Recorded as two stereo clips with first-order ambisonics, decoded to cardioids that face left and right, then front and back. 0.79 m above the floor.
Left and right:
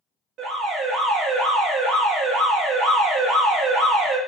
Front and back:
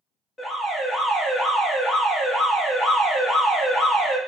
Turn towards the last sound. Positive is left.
turn(degrees=-70)